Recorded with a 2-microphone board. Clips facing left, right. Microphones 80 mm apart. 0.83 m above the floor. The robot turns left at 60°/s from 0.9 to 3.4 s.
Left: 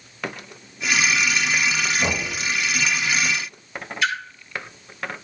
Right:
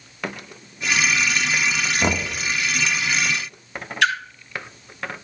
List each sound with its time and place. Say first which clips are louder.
2.0 s knocking: right 2 dB; 45° right (ahead or behind), 1.3 m; by 2.3 s 60° right (ahead or behind), 1.3 m
4.0 s a splash: right 4 dB; 65° right (ahead or behind), 1.7 m